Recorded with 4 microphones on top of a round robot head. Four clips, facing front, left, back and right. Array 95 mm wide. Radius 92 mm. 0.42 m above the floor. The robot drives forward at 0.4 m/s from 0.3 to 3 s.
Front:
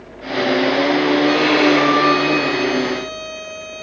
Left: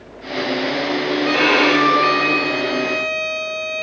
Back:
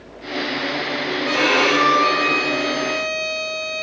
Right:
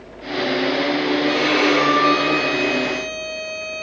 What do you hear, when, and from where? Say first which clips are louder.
1.2 s a violin: left 4 dB, even; 110° left, 4 m; by 3.8 s 120° left, 4.5 m